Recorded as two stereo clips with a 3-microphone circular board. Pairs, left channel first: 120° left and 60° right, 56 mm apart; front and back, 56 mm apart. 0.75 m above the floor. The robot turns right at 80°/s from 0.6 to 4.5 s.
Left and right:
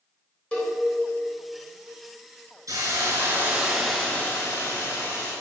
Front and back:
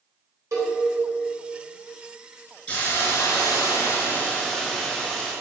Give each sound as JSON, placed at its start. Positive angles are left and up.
{"t": 0.5, "sound": "a cowbell", "azimuth_deg": -170, "distance_m": 4.0}
{"t": 2.7, "sound": "a hiss", "azimuth_deg": -60, "distance_m": 4.5}